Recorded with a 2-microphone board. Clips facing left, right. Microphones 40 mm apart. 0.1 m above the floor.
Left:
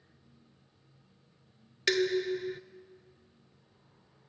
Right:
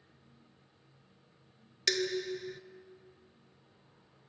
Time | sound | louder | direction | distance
1.9 | dishes clattering | left 5 dB | 20° left (ahead or behind) | 1.0 m